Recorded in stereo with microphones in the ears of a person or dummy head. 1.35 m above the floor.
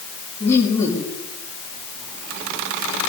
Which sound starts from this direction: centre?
Laughter, at 0.4 s.